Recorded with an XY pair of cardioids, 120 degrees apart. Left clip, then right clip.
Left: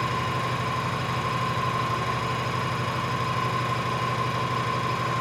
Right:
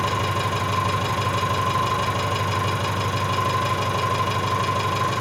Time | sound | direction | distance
0.0 | an engine running | 65° right | 4.5 m